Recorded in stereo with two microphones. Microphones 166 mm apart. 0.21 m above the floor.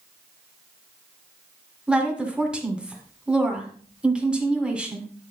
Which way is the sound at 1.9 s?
5° right (ahead or behind).